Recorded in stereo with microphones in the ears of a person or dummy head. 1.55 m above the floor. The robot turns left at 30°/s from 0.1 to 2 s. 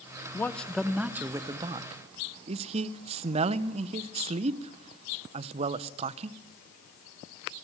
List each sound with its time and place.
0.3 s a man speaking: 15° left, 0.8 m; by 6.4 s 35° right, 0.8 m